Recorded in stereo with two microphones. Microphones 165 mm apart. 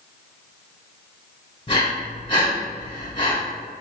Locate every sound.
1.7 s breathing: 35° left (ahead or behind), 1.4 m